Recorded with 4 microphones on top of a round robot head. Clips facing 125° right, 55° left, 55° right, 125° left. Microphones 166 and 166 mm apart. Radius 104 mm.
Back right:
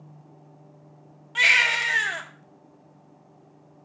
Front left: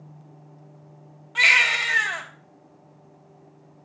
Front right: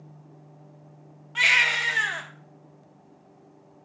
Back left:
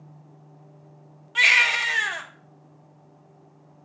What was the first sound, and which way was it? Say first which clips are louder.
A baby crying: front left 1 dB, back left 2 dB; 175° left.